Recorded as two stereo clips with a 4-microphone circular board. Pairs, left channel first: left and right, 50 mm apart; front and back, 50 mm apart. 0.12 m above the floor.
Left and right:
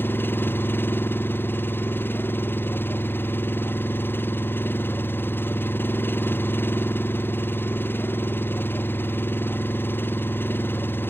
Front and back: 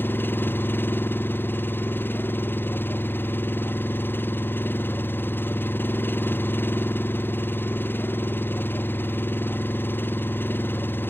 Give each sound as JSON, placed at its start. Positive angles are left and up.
{"t": 0.0, "sound": "an engine running", "azimuth_deg": 45}